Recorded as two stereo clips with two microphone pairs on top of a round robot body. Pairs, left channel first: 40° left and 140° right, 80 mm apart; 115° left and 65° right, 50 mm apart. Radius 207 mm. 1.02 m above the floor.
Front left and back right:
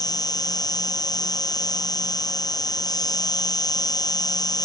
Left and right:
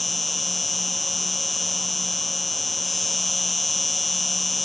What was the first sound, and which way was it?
An insect, 25° left.